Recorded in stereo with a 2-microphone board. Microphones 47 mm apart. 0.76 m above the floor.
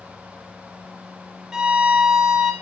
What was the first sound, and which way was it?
A violin, 15° right (ahead or behind).